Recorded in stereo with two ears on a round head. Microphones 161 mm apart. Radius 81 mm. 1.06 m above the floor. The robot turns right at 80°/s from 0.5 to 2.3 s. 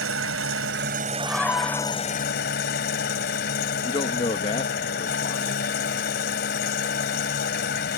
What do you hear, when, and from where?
0.0 s an engine running: 90° right; by 8.0 s 55° left
1.2 s a scream: 10° right; by 2.0 s 60° left
3.8 s a man speaking: 25° left (ahead or behind)